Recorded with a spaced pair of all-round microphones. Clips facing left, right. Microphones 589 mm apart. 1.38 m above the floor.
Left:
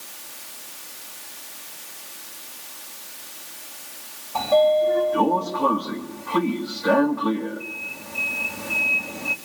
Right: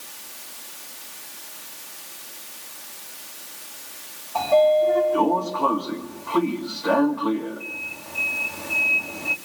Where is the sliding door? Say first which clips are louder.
Right 1 dB; 40° left (ahead or behind), 2.5 m.